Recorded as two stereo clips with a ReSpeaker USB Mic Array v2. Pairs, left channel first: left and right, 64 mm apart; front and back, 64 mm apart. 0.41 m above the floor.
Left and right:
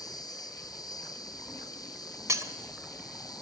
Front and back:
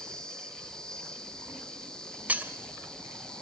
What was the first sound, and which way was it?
An insect, 80° left.